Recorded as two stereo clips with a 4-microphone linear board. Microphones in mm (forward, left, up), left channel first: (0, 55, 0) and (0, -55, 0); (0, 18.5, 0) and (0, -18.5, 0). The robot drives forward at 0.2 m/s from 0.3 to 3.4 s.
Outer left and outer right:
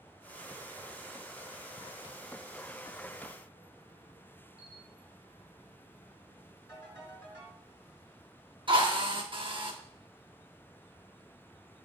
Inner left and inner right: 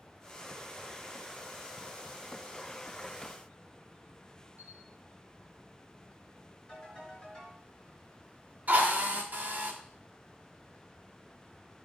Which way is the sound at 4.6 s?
55° right (ahead or behind).